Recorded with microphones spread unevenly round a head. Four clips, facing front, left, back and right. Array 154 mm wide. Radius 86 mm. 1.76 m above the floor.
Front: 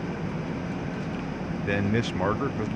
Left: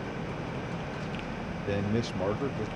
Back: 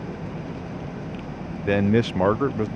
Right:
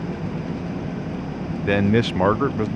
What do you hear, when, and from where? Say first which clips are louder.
0.0 s an engine running: right 7 dB, front 1 dB; 65° right
1.6 s a man speaking: right 12 dB, back 7 dB; 120° right